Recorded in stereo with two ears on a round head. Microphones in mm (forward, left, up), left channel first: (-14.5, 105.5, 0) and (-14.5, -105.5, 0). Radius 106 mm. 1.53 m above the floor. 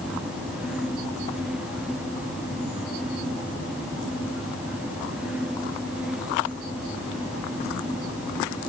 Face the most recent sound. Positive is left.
No sound to turn to.